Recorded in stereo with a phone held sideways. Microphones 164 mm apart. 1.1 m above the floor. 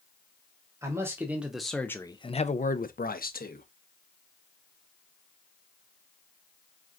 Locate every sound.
0.8 s a man speaking: 20° right (ahead or behind), 1.0 m; by 3.7 s 65° left (ahead or behind), 0.9 m